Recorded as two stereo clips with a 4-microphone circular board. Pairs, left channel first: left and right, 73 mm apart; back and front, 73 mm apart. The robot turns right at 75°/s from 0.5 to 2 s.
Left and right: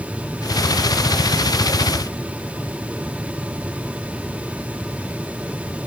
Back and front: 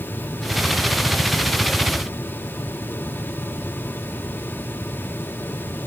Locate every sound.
Only background noise.